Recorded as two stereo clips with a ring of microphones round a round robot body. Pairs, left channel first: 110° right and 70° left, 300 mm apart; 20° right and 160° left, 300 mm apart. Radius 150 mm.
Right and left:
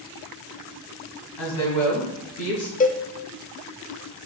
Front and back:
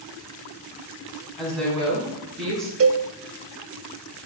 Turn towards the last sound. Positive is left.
turn(degrees=-170)